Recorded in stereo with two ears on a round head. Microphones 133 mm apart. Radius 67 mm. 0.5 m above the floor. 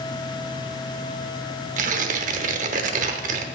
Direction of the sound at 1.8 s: 55° right (ahead or behind).